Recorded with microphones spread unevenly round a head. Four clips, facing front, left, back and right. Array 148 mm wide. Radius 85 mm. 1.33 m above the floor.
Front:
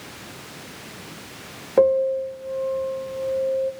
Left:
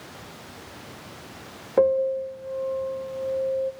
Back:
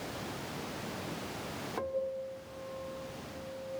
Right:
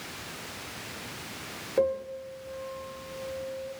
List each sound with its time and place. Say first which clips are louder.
1.8 s a piano: left 8 dB, front 19 dB; 35° left, 1.4 m